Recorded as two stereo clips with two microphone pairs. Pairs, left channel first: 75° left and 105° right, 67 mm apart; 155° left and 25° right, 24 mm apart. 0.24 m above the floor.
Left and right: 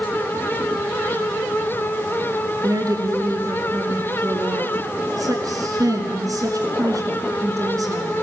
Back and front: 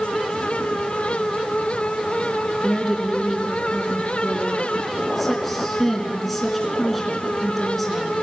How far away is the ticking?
I don't hear ticking.